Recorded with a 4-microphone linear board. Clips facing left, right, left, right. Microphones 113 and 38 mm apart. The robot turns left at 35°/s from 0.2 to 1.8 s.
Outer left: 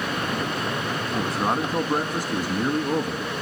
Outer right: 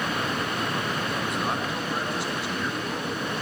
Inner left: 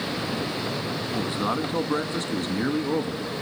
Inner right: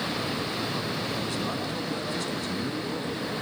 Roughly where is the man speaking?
Left.